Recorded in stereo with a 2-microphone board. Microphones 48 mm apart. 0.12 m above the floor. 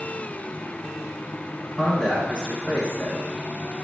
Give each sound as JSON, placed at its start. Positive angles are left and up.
{"t": 1.6, "sound": "a man speaking", "side_deg": 15, "distance_m": 1.1}